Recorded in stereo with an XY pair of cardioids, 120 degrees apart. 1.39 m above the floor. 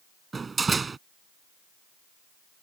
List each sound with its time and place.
0.3 s a door slam: 25° right